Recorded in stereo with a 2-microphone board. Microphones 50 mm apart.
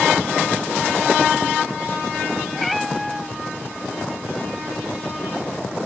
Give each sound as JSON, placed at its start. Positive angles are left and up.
{"t": 2.5, "sound": "a cat meowing", "side_deg": 5}